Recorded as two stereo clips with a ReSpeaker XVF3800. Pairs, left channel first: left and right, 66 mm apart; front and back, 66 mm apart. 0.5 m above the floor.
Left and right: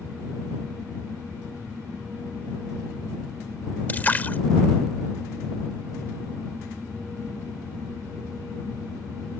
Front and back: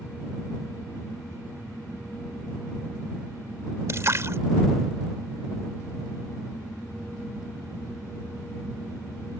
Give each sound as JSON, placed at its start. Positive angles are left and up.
{"t": 3.9, "sound": "a splash", "azimuth_deg": 150}